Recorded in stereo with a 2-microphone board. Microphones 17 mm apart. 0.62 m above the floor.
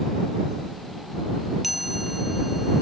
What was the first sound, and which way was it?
A chime, 10° right (ahead or behind).